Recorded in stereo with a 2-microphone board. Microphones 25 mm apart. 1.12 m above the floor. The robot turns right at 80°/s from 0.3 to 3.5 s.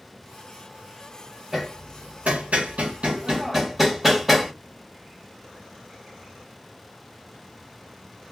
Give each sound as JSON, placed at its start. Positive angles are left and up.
{"t": 1.5, "sound": "hammering", "side_deg": -15, "distance_m": 1.2}